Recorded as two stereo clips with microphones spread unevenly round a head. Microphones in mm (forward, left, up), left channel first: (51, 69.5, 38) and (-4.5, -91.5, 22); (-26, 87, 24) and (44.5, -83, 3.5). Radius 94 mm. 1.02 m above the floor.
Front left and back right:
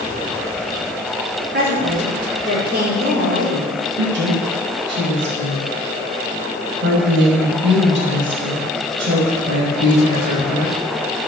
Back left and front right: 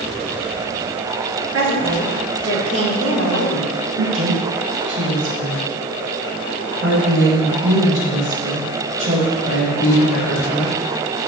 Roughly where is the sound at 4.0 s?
Right.